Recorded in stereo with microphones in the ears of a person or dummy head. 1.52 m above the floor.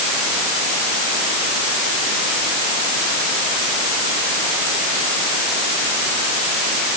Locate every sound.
Only background noise.